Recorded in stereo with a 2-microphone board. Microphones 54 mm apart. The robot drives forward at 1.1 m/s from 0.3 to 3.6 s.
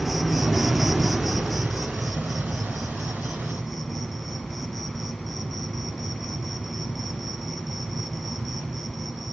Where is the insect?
Centre (ahead or behind), 0.8 m.